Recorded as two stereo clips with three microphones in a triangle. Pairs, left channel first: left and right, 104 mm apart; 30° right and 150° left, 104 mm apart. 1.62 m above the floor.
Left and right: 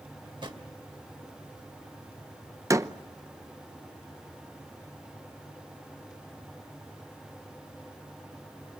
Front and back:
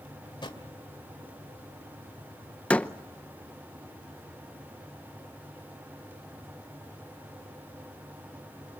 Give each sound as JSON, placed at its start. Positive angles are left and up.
{"t": 0.2, "sound": "a drawer", "azimuth_deg": -60, "distance_m": 2.5}
{"t": 2.7, "sound": "a door slam", "azimuth_deg": -95, "distance_m": 0.7}